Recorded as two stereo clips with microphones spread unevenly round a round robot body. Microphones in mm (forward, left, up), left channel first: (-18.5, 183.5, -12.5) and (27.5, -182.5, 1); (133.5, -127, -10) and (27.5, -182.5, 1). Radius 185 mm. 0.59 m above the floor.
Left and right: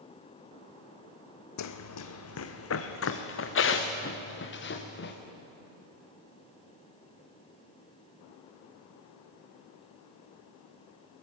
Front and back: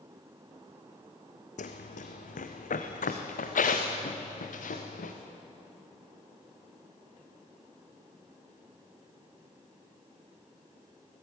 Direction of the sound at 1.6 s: 50° left.